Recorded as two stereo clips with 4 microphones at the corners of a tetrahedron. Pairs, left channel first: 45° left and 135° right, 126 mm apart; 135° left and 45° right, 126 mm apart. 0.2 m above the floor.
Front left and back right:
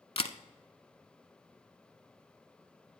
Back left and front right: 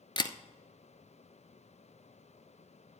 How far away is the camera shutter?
About 0.6 m.